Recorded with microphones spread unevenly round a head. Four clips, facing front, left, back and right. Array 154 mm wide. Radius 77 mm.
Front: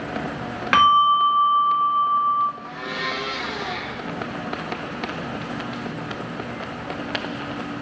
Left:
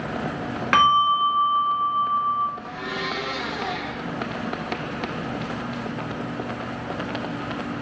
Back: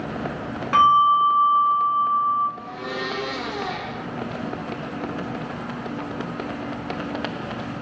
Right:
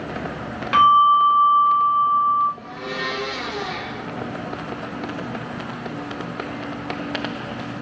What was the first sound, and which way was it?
A bell, 30° left.